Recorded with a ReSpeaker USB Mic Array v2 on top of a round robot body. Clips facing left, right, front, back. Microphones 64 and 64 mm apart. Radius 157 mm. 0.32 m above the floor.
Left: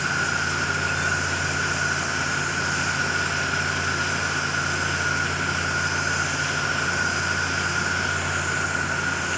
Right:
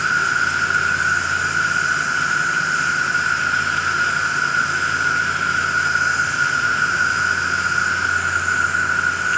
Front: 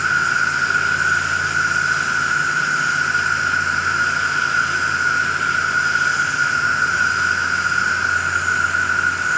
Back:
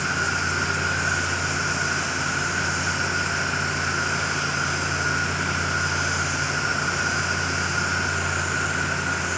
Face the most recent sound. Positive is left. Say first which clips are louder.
# right 6 dB, front 7 dB
turn(degrees=-50)